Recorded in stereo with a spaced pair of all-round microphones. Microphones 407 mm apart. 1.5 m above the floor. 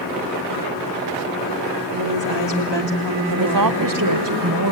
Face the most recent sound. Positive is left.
turn(degrees=-50)  # may be behind; listen again after turning